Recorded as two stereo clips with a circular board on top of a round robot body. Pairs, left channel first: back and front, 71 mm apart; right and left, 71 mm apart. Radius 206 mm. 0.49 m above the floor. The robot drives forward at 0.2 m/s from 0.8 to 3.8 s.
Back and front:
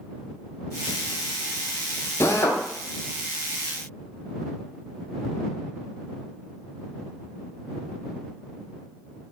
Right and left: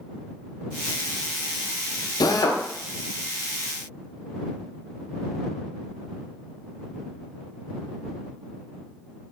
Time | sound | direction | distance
2.2 | a drill | 125° right | 0.5 m